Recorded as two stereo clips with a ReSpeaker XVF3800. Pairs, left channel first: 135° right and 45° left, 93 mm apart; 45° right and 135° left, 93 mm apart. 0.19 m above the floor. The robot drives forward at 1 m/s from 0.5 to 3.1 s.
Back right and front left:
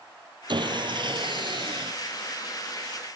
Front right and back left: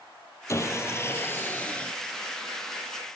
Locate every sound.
0.5 s sawing: 15° left, 2.5 m; by 1.9 s 35° left, 1.0 m